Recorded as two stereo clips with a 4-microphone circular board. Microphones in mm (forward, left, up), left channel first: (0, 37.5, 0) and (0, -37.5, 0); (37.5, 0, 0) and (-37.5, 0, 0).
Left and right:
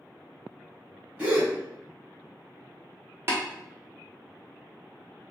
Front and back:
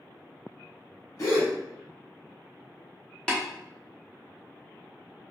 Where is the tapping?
65° right, 0.8 m.